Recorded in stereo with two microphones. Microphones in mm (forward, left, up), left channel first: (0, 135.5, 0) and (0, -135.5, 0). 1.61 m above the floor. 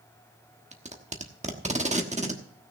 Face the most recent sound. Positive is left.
turn(degrees=-25)  # may be behind; listen again after turning